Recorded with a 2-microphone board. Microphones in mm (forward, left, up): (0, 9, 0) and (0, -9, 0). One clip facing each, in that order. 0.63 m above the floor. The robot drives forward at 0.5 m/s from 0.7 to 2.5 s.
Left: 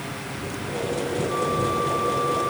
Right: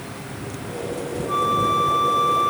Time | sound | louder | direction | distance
1.3 | a flute | right 7 dB | 80° right | ?